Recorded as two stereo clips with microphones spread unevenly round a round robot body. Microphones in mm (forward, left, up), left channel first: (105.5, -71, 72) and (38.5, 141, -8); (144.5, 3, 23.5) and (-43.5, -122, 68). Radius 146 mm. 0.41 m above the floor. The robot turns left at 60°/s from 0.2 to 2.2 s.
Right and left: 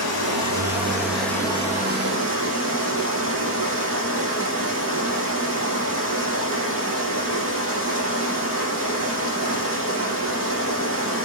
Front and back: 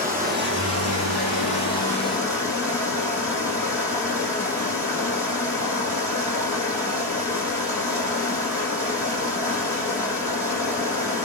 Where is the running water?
95° right, 8 m; by 11.2 s 145° left, 8 m.